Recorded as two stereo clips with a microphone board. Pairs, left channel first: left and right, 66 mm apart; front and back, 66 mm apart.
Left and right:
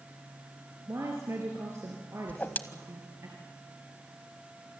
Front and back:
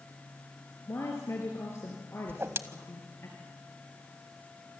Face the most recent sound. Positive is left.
turn(degrees=145)